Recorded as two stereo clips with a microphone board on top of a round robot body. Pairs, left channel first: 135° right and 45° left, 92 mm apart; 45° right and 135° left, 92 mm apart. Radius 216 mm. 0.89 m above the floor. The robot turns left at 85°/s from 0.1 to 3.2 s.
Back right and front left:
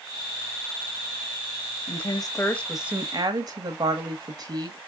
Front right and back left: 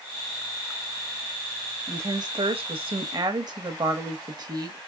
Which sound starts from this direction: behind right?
A woman speaking, at 1.9 s.